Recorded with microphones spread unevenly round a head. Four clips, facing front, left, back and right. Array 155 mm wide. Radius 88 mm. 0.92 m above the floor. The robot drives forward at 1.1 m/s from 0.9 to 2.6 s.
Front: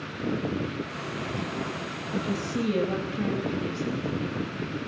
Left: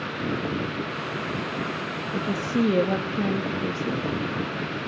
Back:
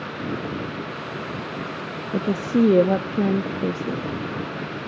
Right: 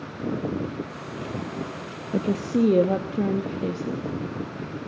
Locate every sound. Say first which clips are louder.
2.1 s a woman speaking: right 3 dB, back 9 dB; 140° right, 0.6 m; by 4.1 s 160° right, 1.0 m